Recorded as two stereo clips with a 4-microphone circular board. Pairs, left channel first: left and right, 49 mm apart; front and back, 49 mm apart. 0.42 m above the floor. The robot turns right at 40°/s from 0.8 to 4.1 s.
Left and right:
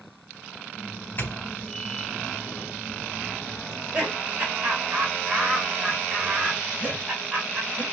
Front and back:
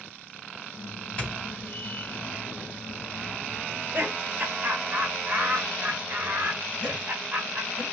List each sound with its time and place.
1.2 s a doorbell: 60° left, 3 m; by 2.3 s 105° left, 3 m
3.7 s laughter: 165° right, 1.7 m; by 7.8 s 145° right, 1.7 m